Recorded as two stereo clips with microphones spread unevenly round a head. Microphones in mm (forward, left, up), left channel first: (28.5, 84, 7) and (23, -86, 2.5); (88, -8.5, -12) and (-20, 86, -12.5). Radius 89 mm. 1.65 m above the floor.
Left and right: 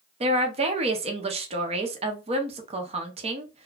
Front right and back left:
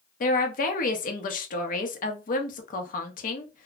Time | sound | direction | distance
0.2 | a woman speaking | 40° right | 0.8 m